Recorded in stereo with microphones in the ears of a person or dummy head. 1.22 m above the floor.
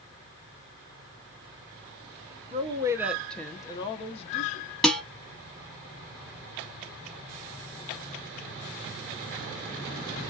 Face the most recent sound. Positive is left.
turn(degrees=5)  # may be behind; listen again after turning